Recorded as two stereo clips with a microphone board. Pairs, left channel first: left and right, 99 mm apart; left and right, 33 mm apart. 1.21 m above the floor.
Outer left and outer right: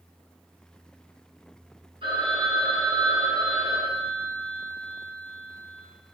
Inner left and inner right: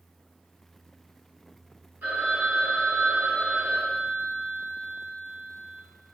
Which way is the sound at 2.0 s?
60° right (ahead or behind).